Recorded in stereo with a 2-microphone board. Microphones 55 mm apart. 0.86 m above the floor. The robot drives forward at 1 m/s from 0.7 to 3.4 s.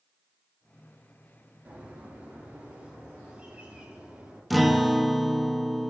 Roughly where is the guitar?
Centre.